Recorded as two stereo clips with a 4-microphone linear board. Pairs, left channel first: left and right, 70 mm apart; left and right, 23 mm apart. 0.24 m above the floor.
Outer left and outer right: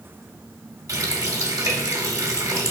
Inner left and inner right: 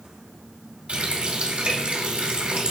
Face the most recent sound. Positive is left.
turn(degrees=-55)  # may be behind; listen again after turning